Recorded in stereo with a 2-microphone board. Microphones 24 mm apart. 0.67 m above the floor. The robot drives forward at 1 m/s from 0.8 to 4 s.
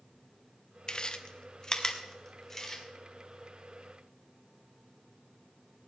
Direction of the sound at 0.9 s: 40° left (ahead or behind).